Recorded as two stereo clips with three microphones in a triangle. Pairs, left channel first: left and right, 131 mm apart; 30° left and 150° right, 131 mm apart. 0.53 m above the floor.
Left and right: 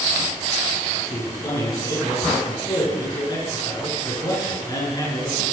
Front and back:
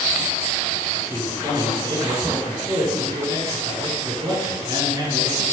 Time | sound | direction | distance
0.9 | a man speaking | 150° left | 8 m